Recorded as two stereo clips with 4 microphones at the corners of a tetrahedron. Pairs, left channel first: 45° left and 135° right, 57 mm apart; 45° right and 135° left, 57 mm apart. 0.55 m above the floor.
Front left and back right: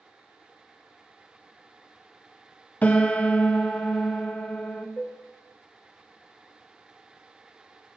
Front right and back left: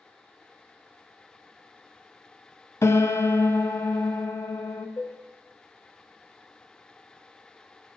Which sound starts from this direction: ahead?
A piano, at 2.8 s.